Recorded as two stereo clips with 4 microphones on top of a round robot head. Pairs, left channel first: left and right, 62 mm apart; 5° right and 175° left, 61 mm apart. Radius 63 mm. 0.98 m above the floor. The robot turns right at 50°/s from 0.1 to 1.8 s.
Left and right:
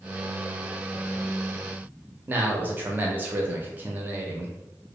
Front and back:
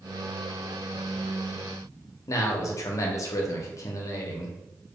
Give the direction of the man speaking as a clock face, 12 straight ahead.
1 o'clock.